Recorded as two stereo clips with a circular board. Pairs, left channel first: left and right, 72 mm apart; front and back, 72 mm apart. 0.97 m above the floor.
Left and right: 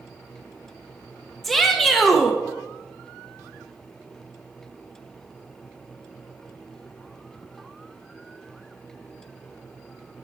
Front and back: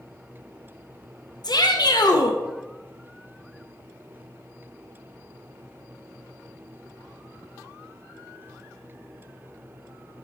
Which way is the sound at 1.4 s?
5° left.